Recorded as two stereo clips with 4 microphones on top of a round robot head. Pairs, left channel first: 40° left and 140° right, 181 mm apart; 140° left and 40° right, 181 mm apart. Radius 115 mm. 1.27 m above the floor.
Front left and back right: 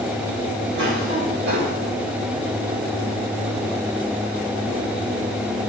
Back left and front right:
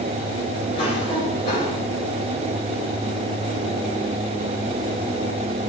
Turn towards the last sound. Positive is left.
turn(degrees=-155)